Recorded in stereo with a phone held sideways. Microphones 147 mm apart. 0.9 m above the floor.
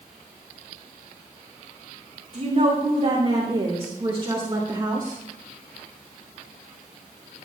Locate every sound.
2.3 s a woman speaking: 50° right (ahead or behind), 3 m; by 5.2 s 20° right (ahead or behind), 1.9 m